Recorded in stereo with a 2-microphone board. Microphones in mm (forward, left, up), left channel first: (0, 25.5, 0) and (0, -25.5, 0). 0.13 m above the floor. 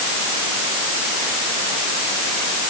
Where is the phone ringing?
No phone ringing in this recording.